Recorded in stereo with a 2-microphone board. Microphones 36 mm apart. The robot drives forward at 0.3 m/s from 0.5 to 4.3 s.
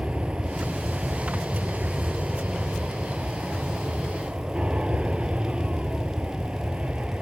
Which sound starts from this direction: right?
An aircraft, at 0.0 s.